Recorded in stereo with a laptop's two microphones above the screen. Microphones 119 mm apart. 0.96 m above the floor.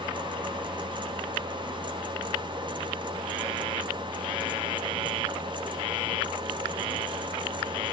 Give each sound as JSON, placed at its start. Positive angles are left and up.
{"t": 0.0, "sound": "a fan", "side_deg": -45, "distance_m": 0.8}